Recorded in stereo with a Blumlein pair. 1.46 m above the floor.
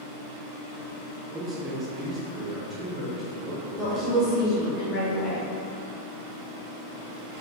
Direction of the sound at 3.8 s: Straight ahead.